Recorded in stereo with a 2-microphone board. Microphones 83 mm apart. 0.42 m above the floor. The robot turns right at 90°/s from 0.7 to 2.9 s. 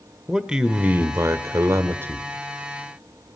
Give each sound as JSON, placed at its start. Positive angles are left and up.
{"t": 0.3, "sound": "a man speaking", "azimuth_deg": -165, "distance_m": 1.0}